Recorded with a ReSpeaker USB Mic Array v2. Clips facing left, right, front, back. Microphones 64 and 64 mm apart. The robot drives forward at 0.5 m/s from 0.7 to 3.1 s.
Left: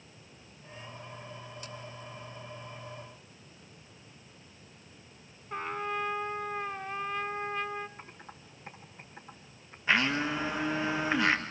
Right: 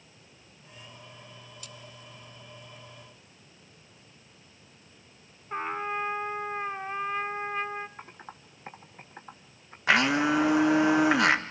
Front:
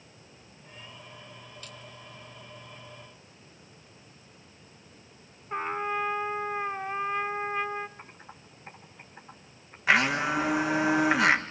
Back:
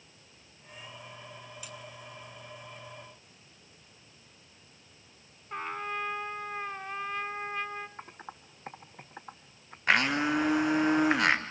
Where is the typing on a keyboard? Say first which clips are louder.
Right 3 dB, back 3 dB; 140° right, 1.5 m.